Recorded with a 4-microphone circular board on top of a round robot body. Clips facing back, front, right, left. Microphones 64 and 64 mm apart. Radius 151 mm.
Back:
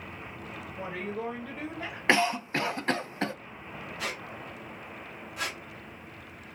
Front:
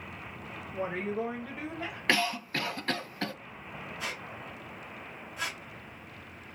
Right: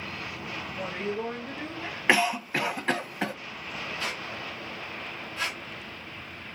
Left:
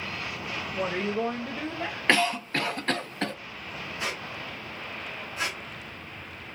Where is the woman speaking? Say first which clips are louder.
Front 4 dB, left 4 dB; 40° left, 0.8 m; by 2.0 s 105° left, 1.5 m.